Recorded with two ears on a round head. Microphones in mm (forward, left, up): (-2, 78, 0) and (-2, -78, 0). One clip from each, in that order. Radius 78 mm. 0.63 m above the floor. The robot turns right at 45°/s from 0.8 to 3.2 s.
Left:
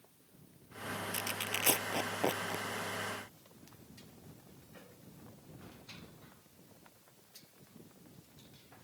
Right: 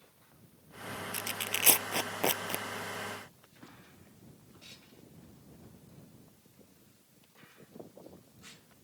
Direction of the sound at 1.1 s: 5° right (ahead or behind).